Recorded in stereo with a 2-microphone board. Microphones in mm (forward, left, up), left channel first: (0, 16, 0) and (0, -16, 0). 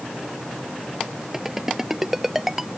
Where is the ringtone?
10° right (ahead or behind).